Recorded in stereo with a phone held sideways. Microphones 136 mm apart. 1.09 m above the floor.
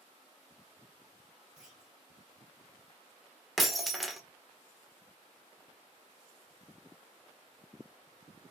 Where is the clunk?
5° right (ahead or behind), 2.5 m.